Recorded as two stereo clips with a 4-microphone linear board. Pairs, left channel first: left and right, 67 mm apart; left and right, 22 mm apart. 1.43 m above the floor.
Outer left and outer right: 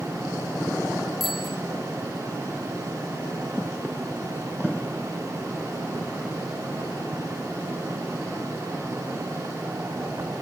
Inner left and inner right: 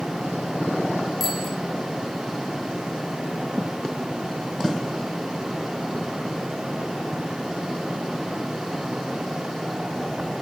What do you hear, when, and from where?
1.2 s a bicycle bell: centre (ahead or behind), 4.5 m